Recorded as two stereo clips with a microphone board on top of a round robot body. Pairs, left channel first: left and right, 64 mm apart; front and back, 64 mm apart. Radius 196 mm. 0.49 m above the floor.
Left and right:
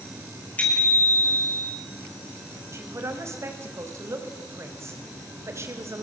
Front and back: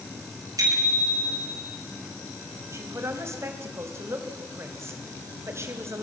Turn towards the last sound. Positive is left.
turn(degrees=-135)